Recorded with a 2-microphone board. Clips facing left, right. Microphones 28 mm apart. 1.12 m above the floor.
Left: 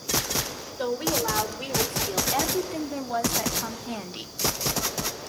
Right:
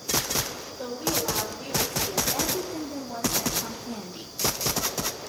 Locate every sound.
0.8 s a woman speaking: 60° left (ahead or behind), 5 m; by 4.3 s 50° left (ahead or behind), 2.5 m